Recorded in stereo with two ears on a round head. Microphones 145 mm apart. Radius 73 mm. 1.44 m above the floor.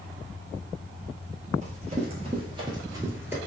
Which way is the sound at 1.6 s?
45° right (ahead or behind).